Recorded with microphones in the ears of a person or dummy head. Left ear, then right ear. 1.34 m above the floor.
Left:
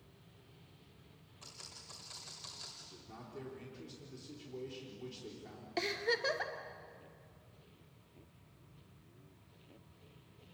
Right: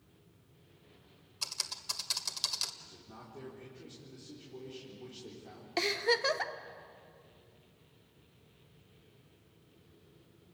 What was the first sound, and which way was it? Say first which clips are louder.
Typing on a keyboard: right 14 dB; 60° right (ahead or behind).